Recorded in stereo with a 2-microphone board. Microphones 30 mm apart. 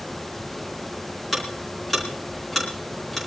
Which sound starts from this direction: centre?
Ticking, at 1.3 s.